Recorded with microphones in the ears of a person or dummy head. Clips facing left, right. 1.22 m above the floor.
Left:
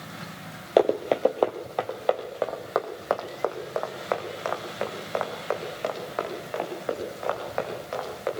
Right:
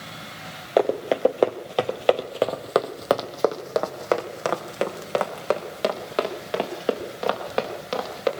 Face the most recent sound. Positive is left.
turn(degrees=-45)  # may be behind; listen again after turning